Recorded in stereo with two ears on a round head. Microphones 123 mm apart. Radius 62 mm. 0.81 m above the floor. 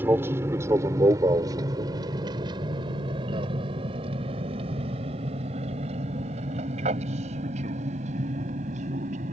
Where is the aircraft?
15° right (ahead or behind); by 9.3 s 60° right (ahead or behind).